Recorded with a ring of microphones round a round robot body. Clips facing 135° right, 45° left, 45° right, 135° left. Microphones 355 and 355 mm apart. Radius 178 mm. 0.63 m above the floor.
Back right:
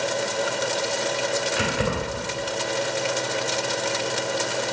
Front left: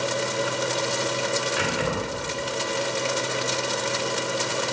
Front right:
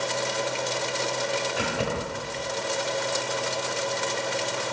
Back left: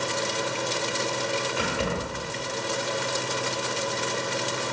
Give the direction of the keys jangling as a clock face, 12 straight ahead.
5 o'clock.